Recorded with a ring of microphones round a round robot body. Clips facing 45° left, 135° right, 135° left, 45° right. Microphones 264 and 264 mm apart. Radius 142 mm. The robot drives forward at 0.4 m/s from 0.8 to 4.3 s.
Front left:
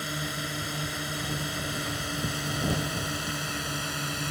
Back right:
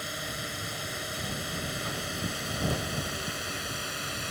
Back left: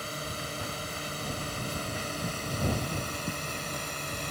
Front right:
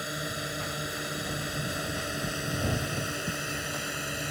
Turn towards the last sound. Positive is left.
turn(degrees=35)